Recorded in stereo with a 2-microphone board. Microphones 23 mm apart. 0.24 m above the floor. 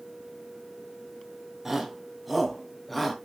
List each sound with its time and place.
1.6 s a shout: 15° right (ahead or behind), 2 m; by 3.1 s 10° left (ahead or behind), 3 m